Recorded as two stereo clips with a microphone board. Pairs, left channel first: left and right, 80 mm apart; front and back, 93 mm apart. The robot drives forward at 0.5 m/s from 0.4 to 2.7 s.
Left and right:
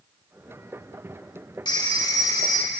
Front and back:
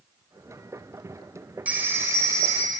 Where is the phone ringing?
110° left, 0.9 m; by 2.7 s 135° left, 1.2 m.